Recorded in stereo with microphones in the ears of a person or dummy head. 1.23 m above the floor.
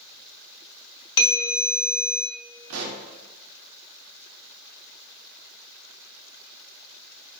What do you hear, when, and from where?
1.2 s a bell: 20° left (ahead or behind), 0.9 m
2.7 s a pop: 70° right (ahead or behind), 0.7 m